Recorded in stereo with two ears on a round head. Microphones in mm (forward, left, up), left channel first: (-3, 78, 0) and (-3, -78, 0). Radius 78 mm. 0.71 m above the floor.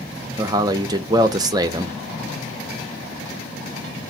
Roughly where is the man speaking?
Right.